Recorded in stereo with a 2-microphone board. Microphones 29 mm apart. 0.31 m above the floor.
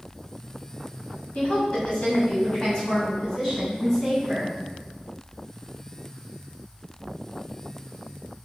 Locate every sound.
1.4 s a woman speaking: 45° left (ahead or behind), 1.6 m; by 4.5 s 15° left (ahead or behind), 2.5 m